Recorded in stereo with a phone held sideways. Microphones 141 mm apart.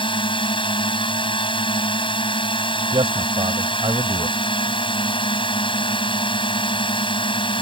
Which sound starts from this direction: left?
A drone, at 0.0 s.